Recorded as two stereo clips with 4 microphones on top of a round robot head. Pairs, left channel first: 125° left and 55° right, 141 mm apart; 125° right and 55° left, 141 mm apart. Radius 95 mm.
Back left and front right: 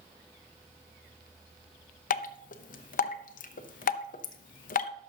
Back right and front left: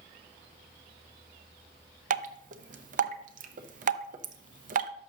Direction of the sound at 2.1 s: 90° left.